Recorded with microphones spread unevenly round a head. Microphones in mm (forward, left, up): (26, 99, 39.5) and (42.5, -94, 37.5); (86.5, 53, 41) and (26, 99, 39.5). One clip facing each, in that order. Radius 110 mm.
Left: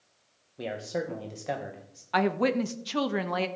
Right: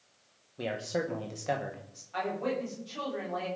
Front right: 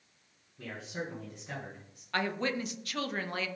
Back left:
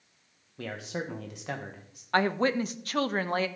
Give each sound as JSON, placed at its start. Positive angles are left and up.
{"t": 0.6, "sound": "a man speaking", "azimuth_deg": -175, "distance_m": 1.2}
{"t": 2.1, "sound": "a woman speaking", "azimuth_deg": 95, "distance_m": 1.0}